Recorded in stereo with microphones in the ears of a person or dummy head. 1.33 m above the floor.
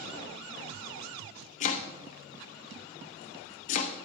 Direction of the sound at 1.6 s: 45° left (ahead or behind).